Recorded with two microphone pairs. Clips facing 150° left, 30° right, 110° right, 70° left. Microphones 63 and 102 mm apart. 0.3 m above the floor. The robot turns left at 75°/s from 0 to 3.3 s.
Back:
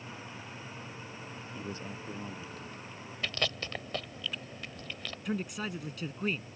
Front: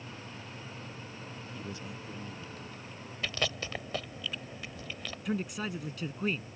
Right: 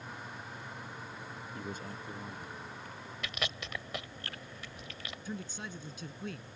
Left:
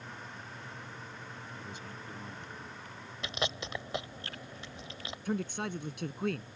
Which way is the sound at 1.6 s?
140° right.